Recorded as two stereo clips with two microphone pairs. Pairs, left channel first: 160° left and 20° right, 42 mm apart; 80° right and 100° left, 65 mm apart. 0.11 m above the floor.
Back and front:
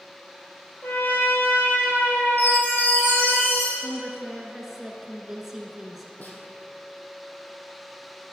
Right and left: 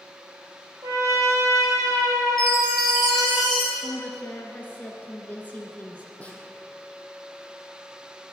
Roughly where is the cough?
No cough in this recording.